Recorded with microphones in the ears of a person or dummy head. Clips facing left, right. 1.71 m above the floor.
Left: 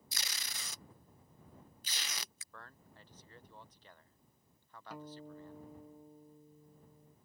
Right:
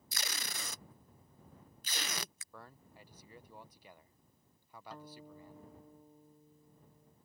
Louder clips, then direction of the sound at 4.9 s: Left 4 dB; 15° left (ahead or behind).